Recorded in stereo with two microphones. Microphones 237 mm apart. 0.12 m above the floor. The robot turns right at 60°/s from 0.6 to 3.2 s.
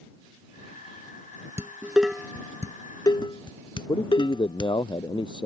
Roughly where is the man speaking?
Centre.